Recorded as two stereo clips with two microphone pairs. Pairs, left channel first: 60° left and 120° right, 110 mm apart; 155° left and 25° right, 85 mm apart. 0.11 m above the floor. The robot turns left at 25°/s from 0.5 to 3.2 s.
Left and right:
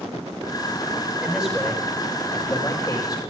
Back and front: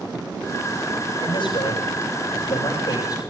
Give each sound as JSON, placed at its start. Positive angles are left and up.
{"t": 1.2, "sound": "a man speaking", "azimuth_deg": 160, "distance_m": 10.0}